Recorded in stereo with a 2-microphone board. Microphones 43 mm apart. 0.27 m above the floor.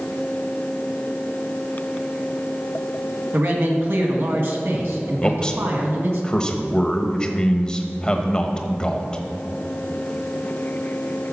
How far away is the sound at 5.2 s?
About 0.9 m.